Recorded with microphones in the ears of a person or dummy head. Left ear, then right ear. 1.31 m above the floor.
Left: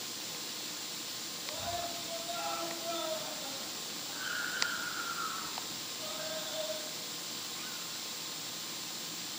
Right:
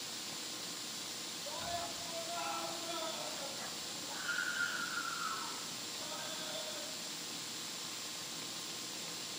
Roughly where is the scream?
Right.